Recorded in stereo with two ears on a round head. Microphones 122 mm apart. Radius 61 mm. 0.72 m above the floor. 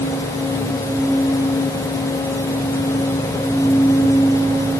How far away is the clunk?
No clunk in this recording.